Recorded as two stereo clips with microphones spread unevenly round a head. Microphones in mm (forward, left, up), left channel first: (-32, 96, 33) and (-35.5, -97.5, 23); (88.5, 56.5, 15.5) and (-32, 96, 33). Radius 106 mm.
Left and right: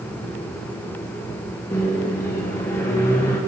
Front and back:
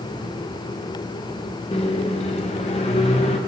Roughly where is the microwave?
Ahead.